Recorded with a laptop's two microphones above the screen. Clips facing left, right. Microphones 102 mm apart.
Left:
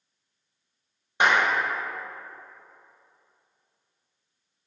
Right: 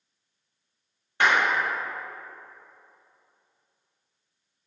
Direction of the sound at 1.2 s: 15° left (ahead or behind).